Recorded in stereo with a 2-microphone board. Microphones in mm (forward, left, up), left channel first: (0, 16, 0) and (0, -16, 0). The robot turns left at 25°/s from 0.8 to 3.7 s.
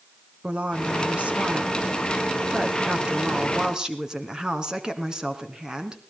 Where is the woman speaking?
75° right, 2 m; by 6.0 s 150° right, 2 m.